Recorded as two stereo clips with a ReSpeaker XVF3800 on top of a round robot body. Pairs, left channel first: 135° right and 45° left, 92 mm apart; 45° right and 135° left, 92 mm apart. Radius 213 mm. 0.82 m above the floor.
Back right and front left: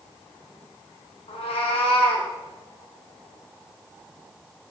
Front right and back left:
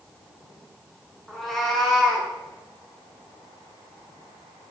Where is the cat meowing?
130° right, 1.0 m.